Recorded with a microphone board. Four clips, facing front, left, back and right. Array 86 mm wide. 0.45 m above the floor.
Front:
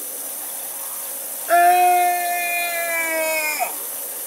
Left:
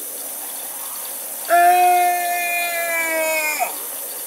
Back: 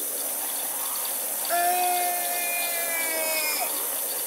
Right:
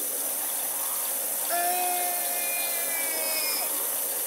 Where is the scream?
50° left; by 3.8 s 60° left.